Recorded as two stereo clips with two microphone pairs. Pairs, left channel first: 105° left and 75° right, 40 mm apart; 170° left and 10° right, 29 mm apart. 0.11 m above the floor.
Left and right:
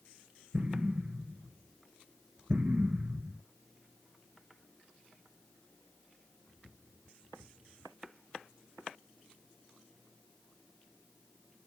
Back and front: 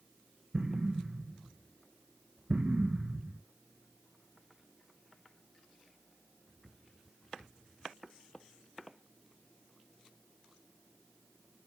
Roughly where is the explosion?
Ahead right.